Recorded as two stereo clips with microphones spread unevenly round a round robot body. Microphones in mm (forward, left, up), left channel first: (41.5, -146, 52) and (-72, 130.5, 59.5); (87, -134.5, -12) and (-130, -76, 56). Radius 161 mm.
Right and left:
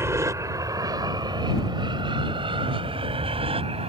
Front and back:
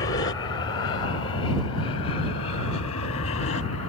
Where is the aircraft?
35° left; by 3.9 s 40° left.